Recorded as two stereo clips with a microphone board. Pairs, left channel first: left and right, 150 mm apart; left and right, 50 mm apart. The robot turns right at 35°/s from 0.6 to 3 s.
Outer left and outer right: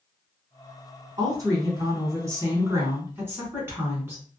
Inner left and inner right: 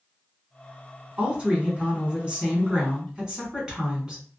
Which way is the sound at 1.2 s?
25° right (ahead or behind).